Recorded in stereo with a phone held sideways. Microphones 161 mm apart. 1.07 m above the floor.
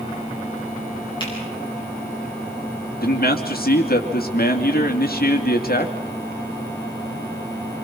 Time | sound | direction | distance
1.2 | a finger snap | 30° left (ahead or behind) | 9.5 m
3.0 | a man speaking | 70° left (ahead or behind) | 2.5 m